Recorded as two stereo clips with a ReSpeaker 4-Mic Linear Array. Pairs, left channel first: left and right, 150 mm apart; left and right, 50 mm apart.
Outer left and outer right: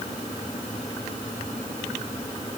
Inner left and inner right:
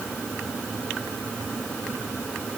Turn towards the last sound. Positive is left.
No sound to turn to.